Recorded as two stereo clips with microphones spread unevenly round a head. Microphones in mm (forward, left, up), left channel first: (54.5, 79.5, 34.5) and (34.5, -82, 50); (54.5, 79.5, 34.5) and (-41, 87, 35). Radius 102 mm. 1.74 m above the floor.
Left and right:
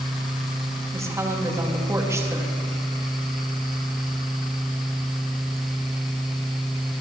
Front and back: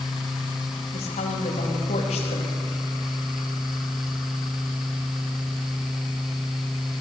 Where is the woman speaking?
25° right, 4 m.